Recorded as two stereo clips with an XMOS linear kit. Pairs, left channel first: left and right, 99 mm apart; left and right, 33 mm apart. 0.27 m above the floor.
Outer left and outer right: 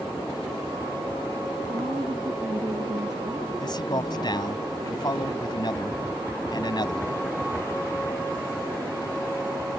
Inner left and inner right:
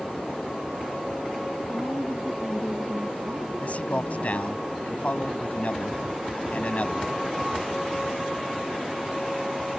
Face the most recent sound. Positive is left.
turn(degrees=50)  # may be behind; listen again after turning